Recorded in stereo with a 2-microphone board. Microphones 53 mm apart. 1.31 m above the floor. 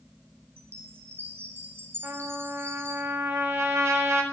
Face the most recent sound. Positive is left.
turn(degrees=-60)  # may be behind; listen again after turning